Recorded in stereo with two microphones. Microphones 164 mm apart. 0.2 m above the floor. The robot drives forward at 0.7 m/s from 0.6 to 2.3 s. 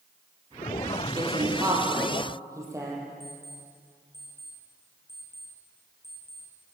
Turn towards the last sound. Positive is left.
turn(degrees=85)